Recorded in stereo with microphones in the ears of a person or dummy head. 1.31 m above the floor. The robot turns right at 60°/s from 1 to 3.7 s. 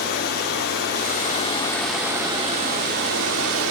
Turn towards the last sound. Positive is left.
turn(degrees=-70)